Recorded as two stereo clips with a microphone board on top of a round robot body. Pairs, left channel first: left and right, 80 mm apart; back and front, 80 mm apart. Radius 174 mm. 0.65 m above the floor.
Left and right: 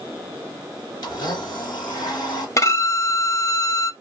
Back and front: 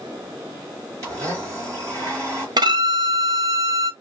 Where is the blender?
50° left, 3 m.